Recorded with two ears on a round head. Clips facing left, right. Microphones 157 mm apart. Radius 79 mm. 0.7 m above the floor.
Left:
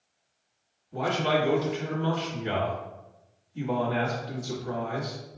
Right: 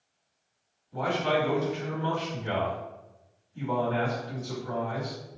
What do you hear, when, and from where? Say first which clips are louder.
0.9 s a man speaking: left 1 dB; 20° left (ahead or behind), 1.3 m